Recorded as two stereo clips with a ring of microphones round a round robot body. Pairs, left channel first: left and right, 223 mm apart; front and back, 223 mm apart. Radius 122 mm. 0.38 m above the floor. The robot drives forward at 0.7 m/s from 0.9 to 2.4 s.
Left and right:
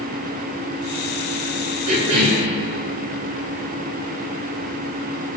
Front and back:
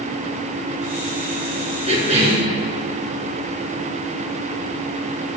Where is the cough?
115° right, 4 m; by 2.5 s 120° right, 4 m.